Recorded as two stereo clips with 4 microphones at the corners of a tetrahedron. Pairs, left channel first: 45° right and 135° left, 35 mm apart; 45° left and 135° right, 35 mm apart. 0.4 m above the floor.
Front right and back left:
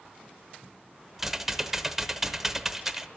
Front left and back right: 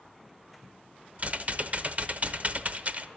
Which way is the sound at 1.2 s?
150° right.